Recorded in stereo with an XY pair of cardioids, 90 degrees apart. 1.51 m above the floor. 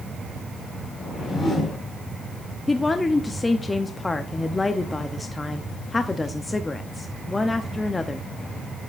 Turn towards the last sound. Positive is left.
turn(degrees=25)